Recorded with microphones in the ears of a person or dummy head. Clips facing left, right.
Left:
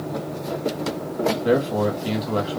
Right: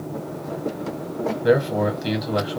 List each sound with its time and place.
1.4 s a man speaking: 15° right (ahead or behind), 1.4 m